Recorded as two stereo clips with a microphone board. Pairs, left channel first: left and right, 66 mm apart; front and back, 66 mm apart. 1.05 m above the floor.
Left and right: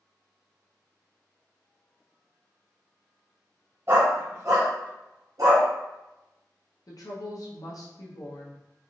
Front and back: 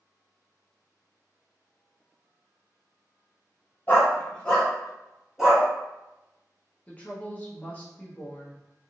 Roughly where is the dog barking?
Ahead right.